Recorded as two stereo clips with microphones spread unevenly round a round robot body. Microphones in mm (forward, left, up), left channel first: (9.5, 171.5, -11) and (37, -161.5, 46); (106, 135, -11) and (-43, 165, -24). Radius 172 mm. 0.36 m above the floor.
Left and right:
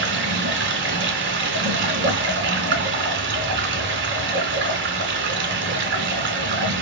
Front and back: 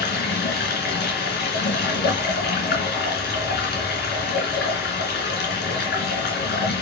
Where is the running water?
25° right, 3 m.